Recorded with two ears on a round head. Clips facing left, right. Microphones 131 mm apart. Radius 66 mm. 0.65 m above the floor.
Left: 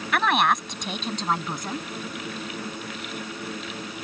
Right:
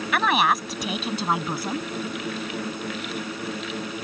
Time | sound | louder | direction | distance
0.1 | a woman speaking | even | centre (ahead or behind) | ?